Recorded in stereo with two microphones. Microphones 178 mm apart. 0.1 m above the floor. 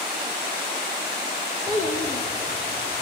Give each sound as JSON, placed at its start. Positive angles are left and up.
{"t": 1.7, "sound": "a child speaking", "side_deg": 40, "distance_m": 1.9}